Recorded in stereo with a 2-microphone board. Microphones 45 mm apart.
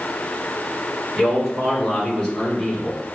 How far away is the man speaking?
About 1.9 m.